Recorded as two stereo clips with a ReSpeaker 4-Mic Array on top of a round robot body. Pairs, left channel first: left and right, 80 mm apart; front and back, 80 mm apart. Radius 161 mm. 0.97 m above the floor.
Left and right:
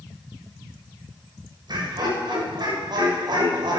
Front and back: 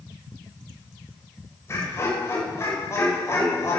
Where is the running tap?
No running tap in this recording.